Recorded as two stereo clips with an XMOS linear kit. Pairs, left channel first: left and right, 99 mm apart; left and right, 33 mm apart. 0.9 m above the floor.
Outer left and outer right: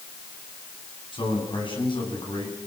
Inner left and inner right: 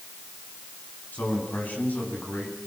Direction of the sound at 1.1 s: 55° left (ahead or behind).